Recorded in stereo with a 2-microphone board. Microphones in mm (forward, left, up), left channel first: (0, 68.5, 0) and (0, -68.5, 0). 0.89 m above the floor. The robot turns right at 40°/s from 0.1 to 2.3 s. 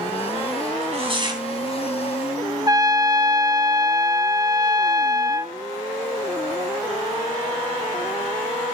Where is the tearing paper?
55° right (ahead or behind), 3.5 m; by 1.4 s 30° right (ahead or behind), 3.5 m.